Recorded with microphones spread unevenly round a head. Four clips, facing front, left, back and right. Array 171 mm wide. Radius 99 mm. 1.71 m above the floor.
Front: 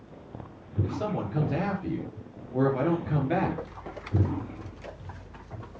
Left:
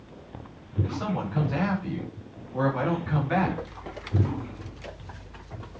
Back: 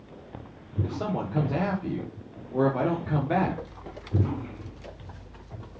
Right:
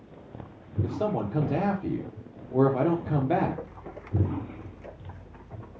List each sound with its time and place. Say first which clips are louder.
0.8 s a man speaking: right 3 dB, back 1 dB; 115° right, 4 m